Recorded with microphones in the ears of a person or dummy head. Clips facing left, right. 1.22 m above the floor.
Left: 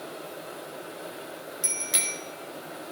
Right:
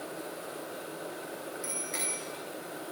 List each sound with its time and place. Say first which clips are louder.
1.6 s a bicycle bell: left 1 dB; 65° left (ahead or behind), 3 m